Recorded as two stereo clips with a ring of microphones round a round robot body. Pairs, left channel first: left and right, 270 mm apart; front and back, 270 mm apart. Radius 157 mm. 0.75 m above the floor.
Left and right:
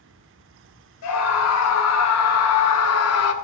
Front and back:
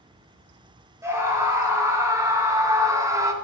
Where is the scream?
100° left, 3.5 m.